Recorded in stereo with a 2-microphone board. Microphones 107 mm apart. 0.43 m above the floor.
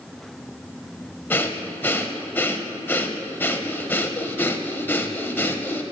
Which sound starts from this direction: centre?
Breathing, at 1.3 s.